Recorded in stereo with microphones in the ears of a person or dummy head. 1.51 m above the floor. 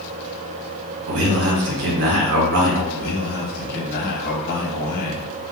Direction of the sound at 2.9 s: 50° left (ahead or behind).